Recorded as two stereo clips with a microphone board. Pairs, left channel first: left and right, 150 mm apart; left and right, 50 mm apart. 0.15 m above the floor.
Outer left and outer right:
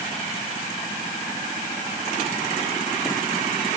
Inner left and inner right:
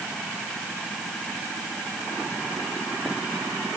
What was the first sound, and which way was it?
Only background noise.